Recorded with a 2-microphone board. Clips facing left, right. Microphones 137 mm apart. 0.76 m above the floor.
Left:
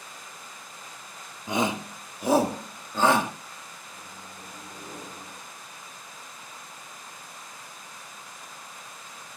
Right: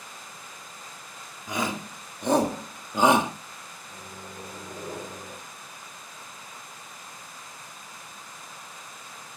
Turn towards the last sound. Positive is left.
turn(degrees=-60)  # may be behind; listen again after turning